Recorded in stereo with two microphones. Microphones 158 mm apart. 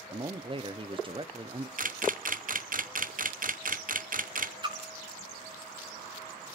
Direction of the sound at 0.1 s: 35° right (ahead or behind).